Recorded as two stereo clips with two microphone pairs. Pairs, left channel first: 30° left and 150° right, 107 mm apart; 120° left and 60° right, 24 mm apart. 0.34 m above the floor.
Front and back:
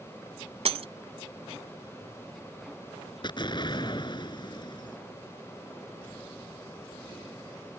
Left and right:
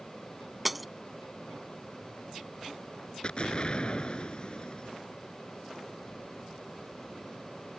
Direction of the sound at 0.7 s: 150° right.